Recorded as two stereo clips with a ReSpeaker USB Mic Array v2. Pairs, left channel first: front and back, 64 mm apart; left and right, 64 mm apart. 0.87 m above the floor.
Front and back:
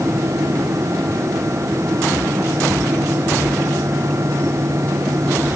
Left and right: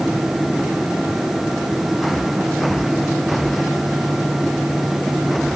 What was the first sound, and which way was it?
Only background noise.